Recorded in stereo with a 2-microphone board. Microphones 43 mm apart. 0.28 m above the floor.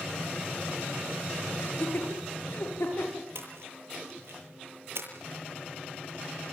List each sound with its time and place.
1.6 s laughter: 75° left (ahead or behind), 6 m; by 3.3 s 80° left, 8.5 m
3.4 s a splash: 75° right (ahead or behind), 8 m